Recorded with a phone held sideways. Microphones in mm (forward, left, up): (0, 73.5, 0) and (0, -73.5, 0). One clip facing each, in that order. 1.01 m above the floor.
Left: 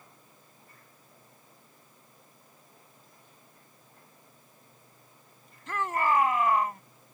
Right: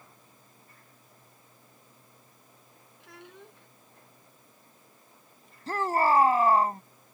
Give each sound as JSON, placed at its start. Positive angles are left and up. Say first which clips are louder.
{"t": 3.0, "sound": "a child speaking", "louder": "right 10 dB", "side_deg": -80}
{"t": 5.7, "sound": "a shout", "louder": "right 3 dB", "side_deg": -35}